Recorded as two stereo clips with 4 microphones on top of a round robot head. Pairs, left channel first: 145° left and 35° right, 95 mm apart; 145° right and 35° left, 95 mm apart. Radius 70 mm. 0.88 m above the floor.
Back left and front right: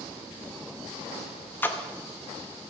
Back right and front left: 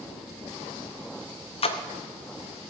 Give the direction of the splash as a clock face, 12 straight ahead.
5 o'clock.